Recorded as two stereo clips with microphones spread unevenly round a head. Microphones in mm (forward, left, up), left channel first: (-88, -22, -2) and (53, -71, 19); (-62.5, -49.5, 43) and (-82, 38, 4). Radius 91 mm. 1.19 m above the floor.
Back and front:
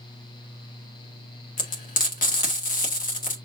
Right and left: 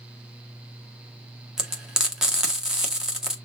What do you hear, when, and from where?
1.6 s frying: 170° right, 1.7 m